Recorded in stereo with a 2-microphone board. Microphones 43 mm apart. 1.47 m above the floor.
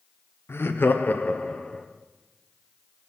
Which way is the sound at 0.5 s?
65° left (ahead or behind).